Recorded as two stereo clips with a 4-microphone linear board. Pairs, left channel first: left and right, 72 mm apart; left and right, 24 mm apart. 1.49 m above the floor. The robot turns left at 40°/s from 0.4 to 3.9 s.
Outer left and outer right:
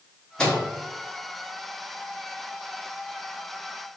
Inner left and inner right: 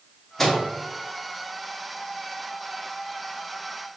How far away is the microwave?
About 0.7 m.